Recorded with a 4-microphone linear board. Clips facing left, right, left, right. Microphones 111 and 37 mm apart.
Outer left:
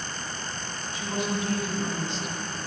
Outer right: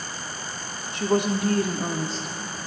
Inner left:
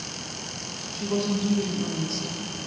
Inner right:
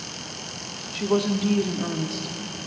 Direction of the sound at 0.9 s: 70° right (ahead or behind).